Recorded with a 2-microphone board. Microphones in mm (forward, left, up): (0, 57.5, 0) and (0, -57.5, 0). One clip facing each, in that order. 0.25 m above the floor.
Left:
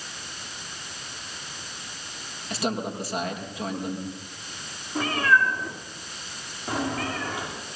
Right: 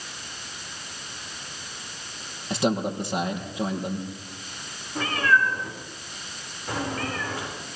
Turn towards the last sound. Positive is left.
turn(degrees=20)  # may be behind; listen again after turning